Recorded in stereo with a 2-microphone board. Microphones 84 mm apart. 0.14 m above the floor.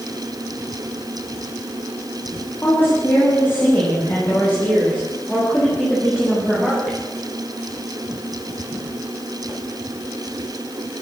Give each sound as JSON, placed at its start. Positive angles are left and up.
{"t": 2.6, "sound": "a woman speaking", "side_deg": 30, "distance_m": 9.0}